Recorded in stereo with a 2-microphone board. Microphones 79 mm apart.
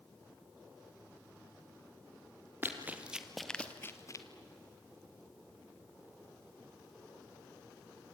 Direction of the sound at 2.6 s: 25° right (ahead or behind).